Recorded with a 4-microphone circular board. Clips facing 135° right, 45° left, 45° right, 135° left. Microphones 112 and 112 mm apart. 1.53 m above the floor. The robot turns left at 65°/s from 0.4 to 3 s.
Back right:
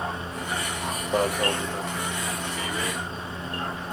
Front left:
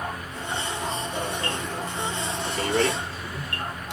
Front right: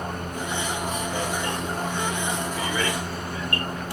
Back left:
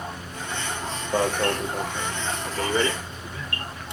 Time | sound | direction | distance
1.1 | an alarm | 175° right | 0.6 m